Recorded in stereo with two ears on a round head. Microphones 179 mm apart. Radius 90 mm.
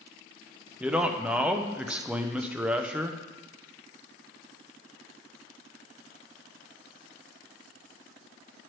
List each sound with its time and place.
0.8 s a man speaking: 5° right (ahead or behind), 0.6 m